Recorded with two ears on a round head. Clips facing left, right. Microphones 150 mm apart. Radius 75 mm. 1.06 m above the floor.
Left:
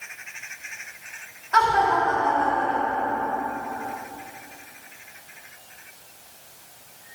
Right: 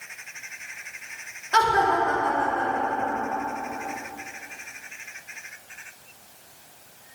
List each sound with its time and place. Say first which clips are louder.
1.5 s laughter: left 1 dB; 35° right (ahead or behind), 2.5 m; by 3.3 s 30° right (ahead or behind), 4 m